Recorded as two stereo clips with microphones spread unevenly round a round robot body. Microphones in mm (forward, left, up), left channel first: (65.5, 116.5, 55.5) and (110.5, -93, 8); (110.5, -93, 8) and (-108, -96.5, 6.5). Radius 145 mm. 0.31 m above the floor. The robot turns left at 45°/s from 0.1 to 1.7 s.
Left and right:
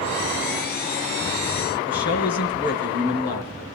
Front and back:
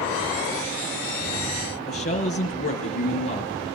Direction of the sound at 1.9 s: 60° left.